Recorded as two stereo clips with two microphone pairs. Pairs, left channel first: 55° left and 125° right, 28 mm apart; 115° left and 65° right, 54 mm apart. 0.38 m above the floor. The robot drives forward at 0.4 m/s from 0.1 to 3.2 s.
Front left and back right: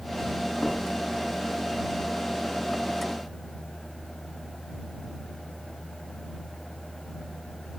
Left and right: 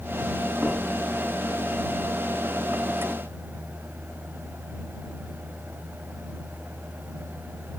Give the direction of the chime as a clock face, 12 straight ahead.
No chime in this recording.